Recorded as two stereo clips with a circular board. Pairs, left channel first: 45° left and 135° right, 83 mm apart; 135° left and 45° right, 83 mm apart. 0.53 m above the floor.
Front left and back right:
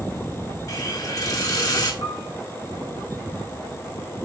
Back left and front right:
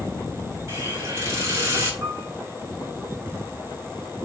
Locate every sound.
0.7 s a hiss: 10° left, 2.5 m
2.0 s a piano: 25° left, 5 m